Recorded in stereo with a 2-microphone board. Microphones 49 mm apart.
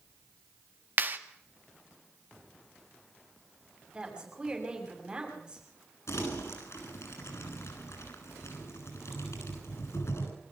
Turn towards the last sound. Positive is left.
turn(degrees=75)  # may be behind; listen again after turning